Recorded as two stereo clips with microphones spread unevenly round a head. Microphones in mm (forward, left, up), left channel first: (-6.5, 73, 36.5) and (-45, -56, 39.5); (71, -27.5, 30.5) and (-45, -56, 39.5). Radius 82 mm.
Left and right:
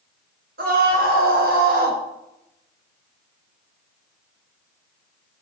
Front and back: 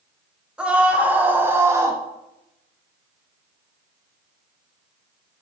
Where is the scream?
85° right, 2.5 m; by 2.0 s 105° right, 1.4 m.